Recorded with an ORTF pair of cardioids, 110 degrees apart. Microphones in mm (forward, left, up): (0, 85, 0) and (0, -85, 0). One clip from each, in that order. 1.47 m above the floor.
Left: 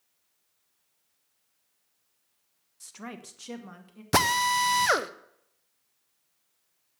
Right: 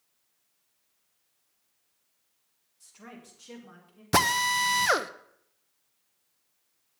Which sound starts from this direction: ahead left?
A woman speaking, at 2.8 s.